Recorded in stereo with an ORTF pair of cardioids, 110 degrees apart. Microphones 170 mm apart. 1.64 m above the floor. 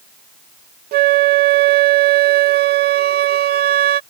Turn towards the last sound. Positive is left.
turn(degrees=-70)